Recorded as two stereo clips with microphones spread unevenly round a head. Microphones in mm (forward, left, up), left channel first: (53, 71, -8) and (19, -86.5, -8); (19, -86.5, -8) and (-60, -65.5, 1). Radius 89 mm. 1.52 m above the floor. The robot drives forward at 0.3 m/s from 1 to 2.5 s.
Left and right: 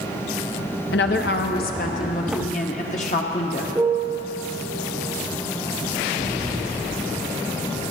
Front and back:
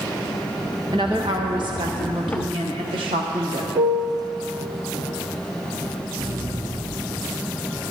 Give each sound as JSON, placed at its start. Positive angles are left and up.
{"t": 0.9, "sound": "a woman speaking", "azimuth_deg": 105, "distance_m": 0.9}
{"t": 3.8, "sound": "a piano", "azimuth_deg": -175, "distance_m": 0.7}
{"t": 6.2, "sound": "an explosion", "azimuth_deg": 160, "distance_m": 1.8}